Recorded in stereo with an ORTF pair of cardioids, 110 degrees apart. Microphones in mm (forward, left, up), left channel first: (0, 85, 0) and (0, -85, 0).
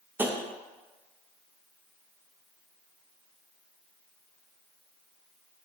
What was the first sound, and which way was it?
Tapping, 10° right.